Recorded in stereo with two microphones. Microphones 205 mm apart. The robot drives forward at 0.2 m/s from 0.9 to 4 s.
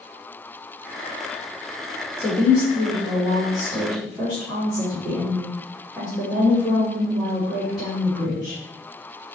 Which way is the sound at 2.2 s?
5° right (ahead or behind).